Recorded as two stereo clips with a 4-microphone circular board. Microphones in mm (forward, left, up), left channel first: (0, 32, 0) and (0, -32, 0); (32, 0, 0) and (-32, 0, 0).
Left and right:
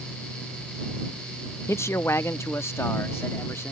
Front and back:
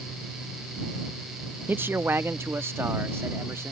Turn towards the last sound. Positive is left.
turn(degrees=135)